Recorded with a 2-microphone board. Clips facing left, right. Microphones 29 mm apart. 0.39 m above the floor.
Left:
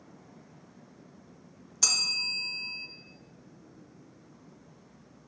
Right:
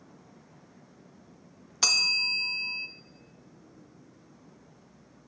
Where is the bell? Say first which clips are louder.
Right 4 dB; 30° right (ahead or behind), 0.5 m.